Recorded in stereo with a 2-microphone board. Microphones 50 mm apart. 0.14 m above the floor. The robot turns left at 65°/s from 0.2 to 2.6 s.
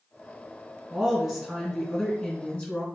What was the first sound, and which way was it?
A woman speaking, 15° right (ahead or behind).